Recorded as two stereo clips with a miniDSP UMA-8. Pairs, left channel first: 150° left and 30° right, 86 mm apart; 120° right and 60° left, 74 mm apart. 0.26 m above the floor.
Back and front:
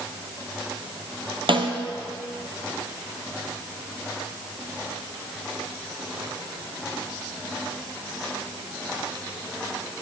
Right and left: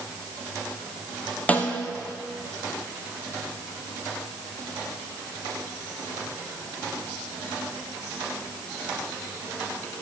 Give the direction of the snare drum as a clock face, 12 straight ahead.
2 o'clock.